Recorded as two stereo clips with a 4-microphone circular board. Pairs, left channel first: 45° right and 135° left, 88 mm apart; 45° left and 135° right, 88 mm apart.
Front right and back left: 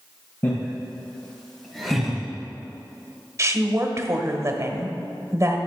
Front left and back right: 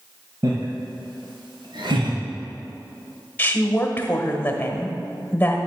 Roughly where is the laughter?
Right.